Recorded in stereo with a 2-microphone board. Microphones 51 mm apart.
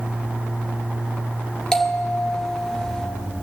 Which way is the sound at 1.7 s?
10° left (ahead or behind).